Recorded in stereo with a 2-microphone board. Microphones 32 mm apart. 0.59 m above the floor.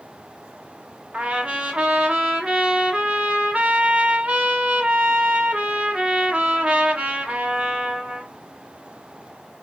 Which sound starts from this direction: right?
A trumpet, at 1.1 s.